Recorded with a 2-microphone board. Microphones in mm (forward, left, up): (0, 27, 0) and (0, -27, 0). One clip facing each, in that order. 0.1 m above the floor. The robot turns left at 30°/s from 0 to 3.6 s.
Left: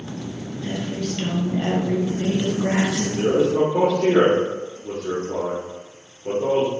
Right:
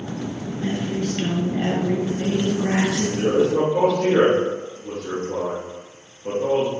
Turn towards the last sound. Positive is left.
turn(degrees=-10)  # may be behind; listen again after turning